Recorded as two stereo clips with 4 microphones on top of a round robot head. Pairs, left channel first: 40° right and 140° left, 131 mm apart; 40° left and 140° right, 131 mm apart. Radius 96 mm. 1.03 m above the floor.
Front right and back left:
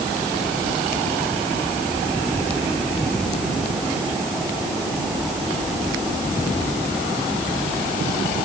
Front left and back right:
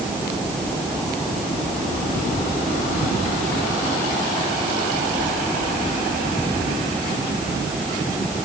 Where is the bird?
I don't hear a bird.